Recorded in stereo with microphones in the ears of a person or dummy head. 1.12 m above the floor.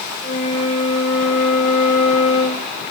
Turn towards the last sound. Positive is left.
turn(degrees=45)  # may be behind; listen again after turning